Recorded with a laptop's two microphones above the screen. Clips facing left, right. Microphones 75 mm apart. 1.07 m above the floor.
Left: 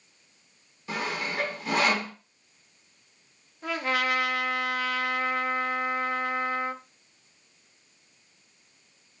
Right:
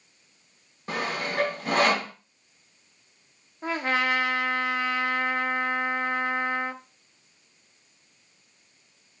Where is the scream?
No scream in this recording.